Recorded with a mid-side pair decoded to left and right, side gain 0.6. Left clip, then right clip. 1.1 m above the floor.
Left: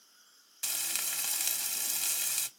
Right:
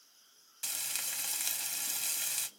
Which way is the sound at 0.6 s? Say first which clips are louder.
Left 3 dB; 15° left.